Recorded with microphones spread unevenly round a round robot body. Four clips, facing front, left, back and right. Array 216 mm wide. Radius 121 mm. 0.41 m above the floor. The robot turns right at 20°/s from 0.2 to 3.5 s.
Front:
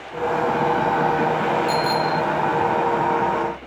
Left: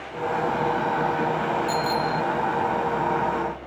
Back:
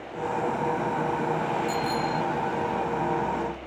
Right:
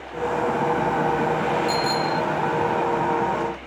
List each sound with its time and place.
1.7 s a bicycle bell: 10° left; by 2.2 s 20° left